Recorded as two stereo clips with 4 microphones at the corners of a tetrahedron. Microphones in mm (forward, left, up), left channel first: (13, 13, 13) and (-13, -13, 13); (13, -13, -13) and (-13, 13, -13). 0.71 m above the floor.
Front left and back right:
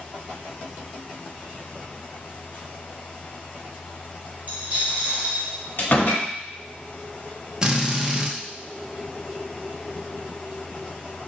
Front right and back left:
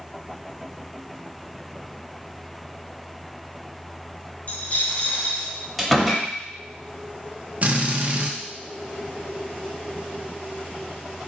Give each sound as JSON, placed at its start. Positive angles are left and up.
{"t": 4.5, "sound": "a dropped coin", "azimuth_deg": -85, "distance_m": 2.0}
{"t": 5.8, "sound": "a door slam", "azimuth_deg": 45, "distance_m": 1.1}
{"t": 7.6, "sound": "a drill", "azimuth_deg": 160, "distance_m": 0.6}